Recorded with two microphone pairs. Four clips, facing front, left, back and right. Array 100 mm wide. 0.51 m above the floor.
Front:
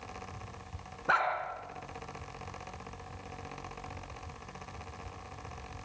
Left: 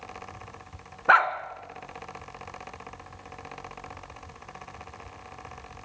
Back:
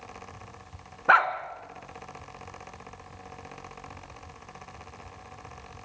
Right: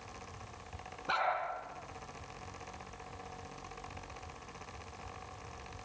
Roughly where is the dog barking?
Behind left.